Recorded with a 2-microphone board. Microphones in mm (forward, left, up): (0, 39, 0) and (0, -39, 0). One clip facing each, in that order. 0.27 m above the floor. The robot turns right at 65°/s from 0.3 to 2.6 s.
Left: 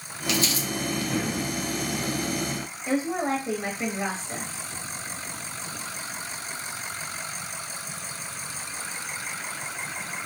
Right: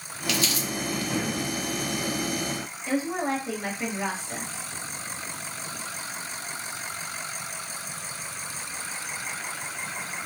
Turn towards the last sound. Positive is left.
turn(degrees=25)  # may be behind; listen again after turning